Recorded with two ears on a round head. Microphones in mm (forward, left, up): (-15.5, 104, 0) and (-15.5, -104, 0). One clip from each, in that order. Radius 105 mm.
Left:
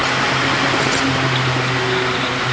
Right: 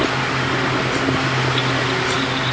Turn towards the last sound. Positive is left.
No sound to turn to.